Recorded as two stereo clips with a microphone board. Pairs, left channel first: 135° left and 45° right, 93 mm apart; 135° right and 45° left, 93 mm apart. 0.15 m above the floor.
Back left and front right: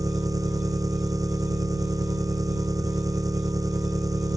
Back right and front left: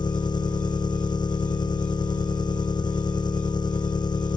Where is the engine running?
95° right.